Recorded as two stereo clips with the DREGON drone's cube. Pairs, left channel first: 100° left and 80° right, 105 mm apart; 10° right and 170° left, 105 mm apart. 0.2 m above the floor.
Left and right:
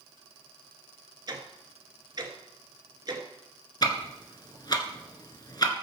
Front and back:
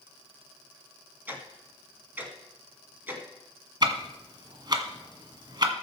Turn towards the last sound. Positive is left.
turn(degrees=135)